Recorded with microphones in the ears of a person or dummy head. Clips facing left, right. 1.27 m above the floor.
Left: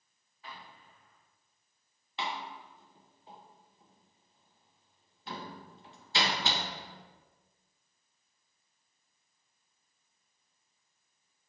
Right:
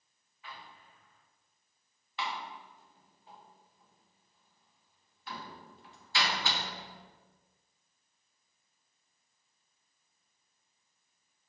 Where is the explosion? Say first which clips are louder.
Left 1 dB; 30° left (ahead or behind), 1.0 m.